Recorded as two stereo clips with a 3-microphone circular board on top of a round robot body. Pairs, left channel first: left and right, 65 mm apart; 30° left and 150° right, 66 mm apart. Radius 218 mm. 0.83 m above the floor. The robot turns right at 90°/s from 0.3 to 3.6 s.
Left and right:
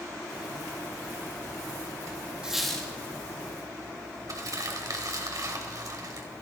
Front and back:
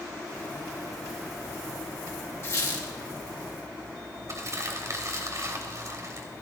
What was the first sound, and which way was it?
A squeak, 20° right.